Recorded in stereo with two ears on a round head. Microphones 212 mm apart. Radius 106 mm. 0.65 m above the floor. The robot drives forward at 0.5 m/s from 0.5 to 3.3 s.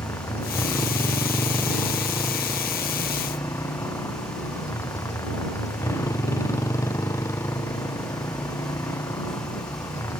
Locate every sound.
0.0 s a motorcycle: 10° left (ahead or behind); by 10.2 s 15° left (ahead or behind)